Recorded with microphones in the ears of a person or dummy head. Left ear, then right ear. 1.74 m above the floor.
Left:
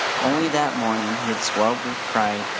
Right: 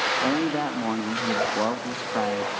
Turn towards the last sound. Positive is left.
turn(degrees=75)  # may be behind; listen again after turning